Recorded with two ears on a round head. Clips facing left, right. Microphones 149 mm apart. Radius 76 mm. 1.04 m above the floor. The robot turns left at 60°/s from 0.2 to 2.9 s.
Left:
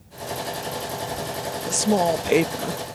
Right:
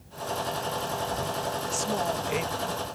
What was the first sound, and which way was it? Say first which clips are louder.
A woman speaking: left 12 dB; 110° left.